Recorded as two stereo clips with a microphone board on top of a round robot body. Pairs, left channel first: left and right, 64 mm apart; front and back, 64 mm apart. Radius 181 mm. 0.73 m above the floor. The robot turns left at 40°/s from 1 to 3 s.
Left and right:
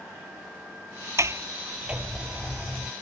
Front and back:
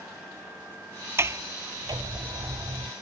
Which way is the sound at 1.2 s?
130° right.